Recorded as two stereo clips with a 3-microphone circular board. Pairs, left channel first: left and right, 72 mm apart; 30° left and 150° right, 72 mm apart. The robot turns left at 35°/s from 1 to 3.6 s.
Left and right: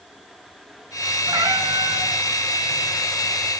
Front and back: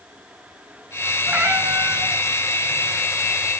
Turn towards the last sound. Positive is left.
turn(degrees=-160)